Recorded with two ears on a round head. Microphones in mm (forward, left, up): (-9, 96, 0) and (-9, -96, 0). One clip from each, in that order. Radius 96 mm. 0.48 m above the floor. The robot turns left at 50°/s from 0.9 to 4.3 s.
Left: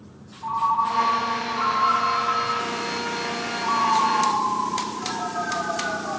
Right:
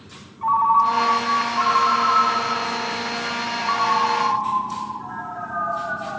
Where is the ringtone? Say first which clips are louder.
Right 5 dB; 60° right, 1.1 m; by 6.2 s 130° left, 1.1 m.